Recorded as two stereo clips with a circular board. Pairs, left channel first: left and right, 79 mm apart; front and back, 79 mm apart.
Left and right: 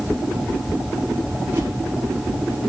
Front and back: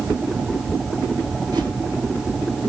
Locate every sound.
1.5 s a whoosh: 150° right, 9 m